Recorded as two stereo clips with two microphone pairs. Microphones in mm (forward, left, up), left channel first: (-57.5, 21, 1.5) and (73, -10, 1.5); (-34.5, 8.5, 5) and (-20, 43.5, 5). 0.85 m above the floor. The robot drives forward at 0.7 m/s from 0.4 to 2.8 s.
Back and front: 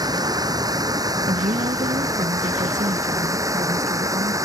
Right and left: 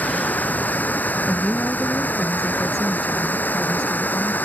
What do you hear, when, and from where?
0.0 s running water: 75° right; by 4.5 s 80° right
1.3 s a woman speaking: 35° right